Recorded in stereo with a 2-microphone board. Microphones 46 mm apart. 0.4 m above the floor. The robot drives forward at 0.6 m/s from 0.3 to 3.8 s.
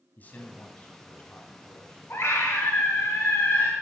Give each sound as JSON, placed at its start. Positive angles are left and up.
{"t": 0.2, "sound": "a man speaking", "side_deg": 35, "distance_m": 2.0}
{"t": 2.1, "sound": "a scream", "side_deg": 60, "distance_m": 1.8}